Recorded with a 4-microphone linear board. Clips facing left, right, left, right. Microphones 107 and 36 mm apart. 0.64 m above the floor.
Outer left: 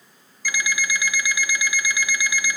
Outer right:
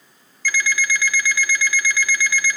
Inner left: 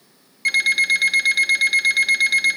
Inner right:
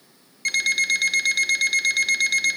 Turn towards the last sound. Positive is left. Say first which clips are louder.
# outer right 3 dB, inner left 4 dB
turn(degrees=15)  # may be behind; listen again after turning